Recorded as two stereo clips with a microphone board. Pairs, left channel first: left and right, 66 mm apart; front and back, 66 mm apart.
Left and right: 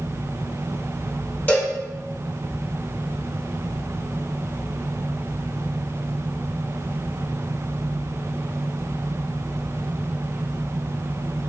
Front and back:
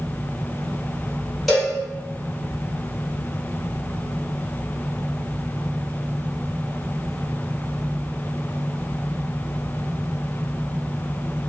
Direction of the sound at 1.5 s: 85° left.